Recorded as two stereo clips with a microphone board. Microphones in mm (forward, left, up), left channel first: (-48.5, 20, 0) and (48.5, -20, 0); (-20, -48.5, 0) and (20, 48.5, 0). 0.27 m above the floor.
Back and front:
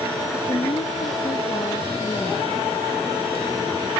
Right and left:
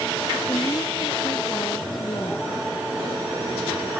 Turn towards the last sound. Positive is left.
turn(degrees=-160)